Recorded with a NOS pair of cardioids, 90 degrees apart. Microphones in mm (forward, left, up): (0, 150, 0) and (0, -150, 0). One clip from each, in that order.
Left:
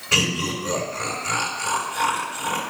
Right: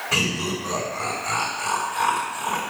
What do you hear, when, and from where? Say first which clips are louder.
0.1 s laughter: left 3 dB; 10° left, 3 m